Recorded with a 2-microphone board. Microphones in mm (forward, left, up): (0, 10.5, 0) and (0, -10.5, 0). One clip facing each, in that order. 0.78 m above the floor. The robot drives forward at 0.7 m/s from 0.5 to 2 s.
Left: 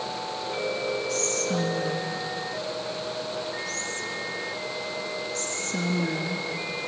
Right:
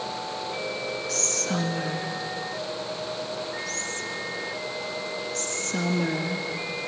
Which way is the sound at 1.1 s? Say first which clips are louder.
Even; 35° right (ahead or behind).